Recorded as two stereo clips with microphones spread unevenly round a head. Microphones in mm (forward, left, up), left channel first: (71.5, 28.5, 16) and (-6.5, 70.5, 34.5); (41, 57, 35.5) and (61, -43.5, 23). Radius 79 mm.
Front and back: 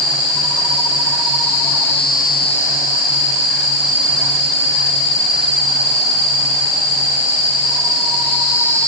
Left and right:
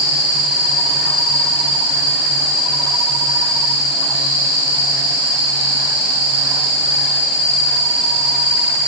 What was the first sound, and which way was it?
Only background noise.